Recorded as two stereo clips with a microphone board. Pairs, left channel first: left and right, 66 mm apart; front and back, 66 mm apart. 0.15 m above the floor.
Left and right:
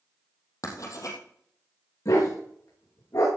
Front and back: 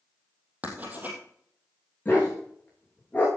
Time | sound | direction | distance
0.6 | writing | 115° left | 3 m
2.0 | a dog barking | 65° left | 6.5 m